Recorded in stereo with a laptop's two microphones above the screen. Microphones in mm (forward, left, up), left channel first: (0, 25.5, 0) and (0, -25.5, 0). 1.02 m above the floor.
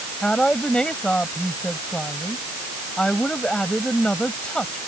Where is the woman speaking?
20° left (ahead or behind).